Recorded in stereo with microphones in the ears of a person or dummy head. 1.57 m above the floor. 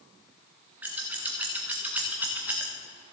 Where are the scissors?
15° right (ahead or behind), 1.3 m.